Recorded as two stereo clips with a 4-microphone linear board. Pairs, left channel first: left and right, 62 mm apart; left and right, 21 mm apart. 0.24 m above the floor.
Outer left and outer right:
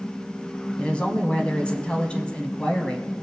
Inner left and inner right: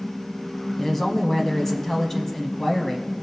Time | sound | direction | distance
0.8 | a woman speaking | 20° left (ahead or behind) | 1.3 m